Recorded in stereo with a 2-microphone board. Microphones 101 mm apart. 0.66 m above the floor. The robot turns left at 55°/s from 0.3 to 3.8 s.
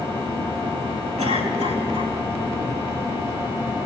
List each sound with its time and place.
1.2 s a cough: 90° right, 4.5 m; by 2.1 s 140° right, 4.5 m